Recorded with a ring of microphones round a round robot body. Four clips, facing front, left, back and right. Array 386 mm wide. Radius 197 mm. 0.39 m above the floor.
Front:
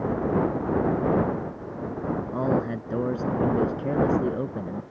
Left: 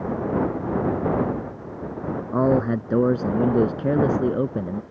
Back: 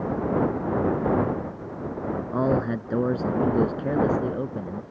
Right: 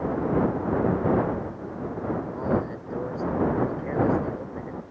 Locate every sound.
2.3 s a man speaking: 105° left; by 4.8 s 85° left